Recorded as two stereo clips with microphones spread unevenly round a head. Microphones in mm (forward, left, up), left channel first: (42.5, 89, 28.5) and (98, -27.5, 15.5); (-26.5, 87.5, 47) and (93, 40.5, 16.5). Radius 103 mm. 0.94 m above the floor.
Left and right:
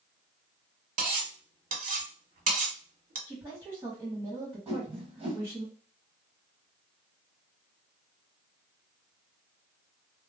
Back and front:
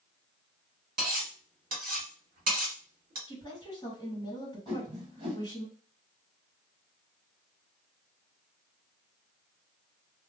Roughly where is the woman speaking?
Behind right.